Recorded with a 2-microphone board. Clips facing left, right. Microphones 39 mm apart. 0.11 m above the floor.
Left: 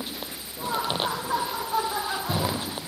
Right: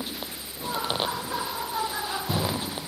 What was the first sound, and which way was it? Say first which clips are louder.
Laughter: left 2 dB; 75° left (ahead or behind).